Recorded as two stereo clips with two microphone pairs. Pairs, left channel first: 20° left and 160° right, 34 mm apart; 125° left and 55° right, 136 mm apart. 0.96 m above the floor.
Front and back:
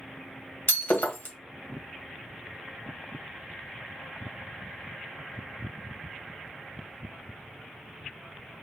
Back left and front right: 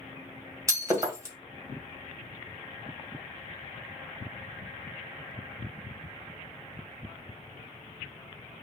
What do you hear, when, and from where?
0.7 s breaking glass: 15° left, 1.7 m